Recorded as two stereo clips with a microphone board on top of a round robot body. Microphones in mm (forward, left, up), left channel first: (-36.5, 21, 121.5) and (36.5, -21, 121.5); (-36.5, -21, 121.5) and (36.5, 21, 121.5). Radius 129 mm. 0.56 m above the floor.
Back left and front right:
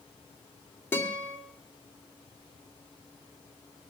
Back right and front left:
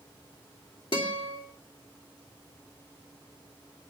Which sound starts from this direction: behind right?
A guitar, at 0.9 s.